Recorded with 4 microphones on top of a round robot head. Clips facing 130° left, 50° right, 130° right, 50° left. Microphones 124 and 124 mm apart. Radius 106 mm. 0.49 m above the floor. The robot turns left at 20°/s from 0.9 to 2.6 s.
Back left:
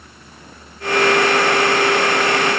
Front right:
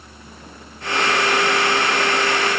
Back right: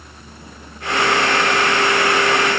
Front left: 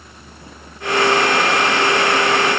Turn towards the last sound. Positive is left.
No sound to turn to.